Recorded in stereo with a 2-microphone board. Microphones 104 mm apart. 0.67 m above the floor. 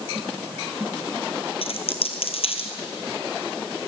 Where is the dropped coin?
70° left (ahead or behind), 2.5 m.